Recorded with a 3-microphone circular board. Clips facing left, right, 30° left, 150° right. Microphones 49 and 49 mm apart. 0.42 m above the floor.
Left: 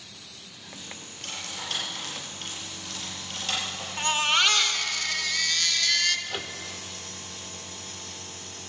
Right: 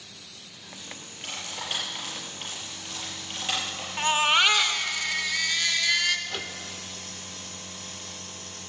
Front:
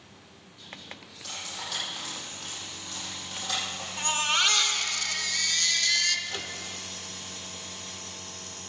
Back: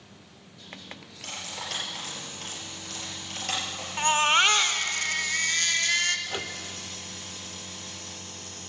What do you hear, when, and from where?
1.2 s cutlery clinking: 165° right, 5.5 m
4.0 s a baby crying: 160° right, 0.9 m
6.3 s a microwave: 165° left, 0.6 m